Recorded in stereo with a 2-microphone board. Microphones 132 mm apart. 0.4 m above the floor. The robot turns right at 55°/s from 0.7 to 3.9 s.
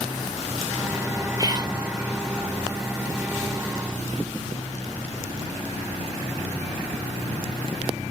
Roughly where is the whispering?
Right.